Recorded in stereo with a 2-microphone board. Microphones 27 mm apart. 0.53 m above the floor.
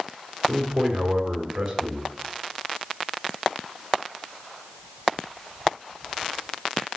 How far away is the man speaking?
About 2 m.